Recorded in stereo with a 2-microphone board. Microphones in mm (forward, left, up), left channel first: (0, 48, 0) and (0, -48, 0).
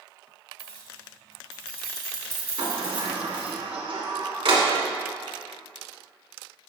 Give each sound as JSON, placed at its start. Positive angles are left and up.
{"t": 0.6, "sound": "keys jangling", "side_deg": 70, "distance_m": 2.5}
{"t": 2.6, "sound": "a sliding door", "side_deg": -80, "distance_m": 1.4}